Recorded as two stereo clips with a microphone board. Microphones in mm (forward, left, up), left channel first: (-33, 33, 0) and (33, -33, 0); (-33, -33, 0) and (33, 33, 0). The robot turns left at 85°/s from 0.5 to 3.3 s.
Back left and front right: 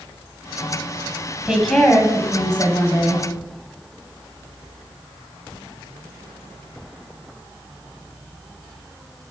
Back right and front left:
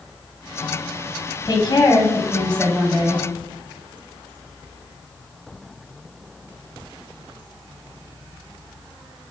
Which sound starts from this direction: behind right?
A woman speaking, at 1.4 s.